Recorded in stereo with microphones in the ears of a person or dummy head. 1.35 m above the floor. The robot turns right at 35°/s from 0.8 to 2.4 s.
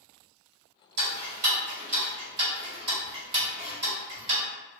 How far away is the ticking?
About 1.5 m.